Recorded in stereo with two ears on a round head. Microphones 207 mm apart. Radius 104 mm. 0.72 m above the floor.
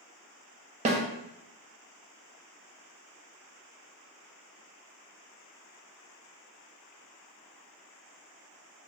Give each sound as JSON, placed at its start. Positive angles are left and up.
{"t": 0.8, "sound": "a snare drum", "side_deg": -30, "distance_m": 0.5}